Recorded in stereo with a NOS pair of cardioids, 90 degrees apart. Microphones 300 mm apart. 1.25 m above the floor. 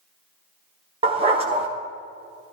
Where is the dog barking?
20° right, 2.5 m.